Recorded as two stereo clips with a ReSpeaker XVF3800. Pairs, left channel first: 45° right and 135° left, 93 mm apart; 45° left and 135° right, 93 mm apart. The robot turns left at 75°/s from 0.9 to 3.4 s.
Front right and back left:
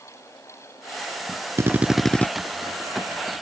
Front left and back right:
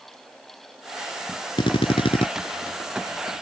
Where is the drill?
75° left; by 2.3 s 25° left.